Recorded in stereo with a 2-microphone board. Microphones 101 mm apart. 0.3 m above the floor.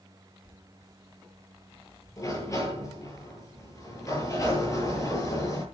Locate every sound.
2.2 s a sliding door: 30° left (ahead or behind), 8 m